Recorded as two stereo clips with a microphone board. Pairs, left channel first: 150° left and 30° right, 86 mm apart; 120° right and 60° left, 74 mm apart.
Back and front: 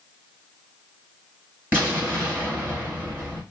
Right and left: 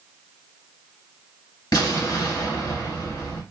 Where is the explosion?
95° right, 3 m.